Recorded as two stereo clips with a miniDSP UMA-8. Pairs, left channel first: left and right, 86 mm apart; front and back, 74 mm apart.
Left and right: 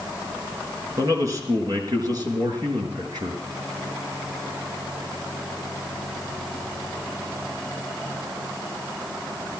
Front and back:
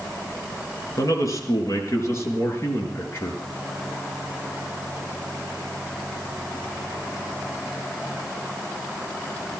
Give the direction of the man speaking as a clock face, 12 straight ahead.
1 o'clock.